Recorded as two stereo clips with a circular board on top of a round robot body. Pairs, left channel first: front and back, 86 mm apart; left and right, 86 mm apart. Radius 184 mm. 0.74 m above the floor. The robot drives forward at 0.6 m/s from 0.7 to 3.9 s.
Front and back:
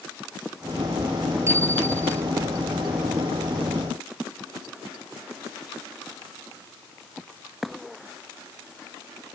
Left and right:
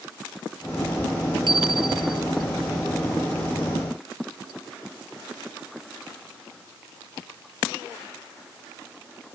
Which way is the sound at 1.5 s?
120° right.